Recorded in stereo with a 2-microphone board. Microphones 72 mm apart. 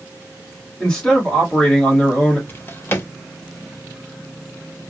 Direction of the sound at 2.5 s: 30° left (ahead or behind).